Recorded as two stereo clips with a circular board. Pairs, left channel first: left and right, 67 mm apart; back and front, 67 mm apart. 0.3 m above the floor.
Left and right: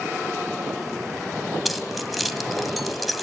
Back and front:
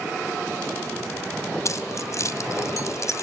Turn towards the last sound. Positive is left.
turn(degrees=180)